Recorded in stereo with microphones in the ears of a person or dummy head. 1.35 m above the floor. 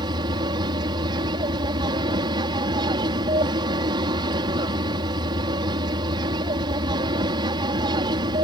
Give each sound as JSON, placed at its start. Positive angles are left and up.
{"t": 0.0, "sound": "an aircraft", "side_deg": -25}